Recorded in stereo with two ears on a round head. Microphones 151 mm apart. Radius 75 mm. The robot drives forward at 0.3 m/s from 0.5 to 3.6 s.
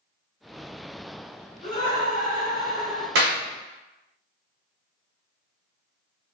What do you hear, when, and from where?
1.6 s laughter: 35° left (ahead or behind), 1.1 m; by 3.0 s 55° left (ahead or behind), 0.8 m
3.1 s a clap: 70° right (ahead or behind), 0.7 m; by 3.4 s 65° right (ahead or behind), 0.8 m